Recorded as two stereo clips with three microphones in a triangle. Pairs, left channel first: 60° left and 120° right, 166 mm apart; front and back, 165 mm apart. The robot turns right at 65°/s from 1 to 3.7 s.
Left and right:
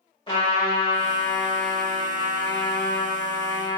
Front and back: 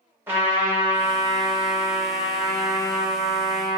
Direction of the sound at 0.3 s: 105° left.